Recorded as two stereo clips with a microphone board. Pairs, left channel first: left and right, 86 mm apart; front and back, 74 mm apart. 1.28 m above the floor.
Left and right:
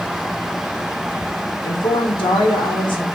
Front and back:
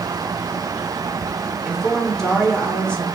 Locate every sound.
1.6 s a woman speaking: 90° left, 0.8 m; by 3.0 s 80° left, 1.6 m